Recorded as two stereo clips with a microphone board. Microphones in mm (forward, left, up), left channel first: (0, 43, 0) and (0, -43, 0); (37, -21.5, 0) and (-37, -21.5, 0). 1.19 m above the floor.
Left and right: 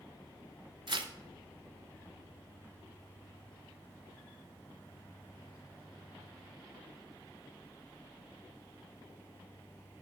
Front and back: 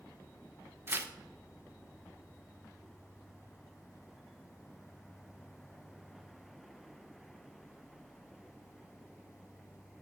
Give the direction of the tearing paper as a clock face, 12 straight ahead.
4 o'clock.